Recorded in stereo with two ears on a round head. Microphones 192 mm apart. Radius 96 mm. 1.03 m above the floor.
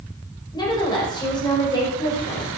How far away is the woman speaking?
About 5.5 m.